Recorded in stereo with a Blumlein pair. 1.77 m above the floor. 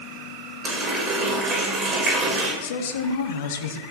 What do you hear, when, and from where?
0.6 s a running tap: 20° right, 5.5 m
2.6 s a woman speaking: 55° left, 1.5 m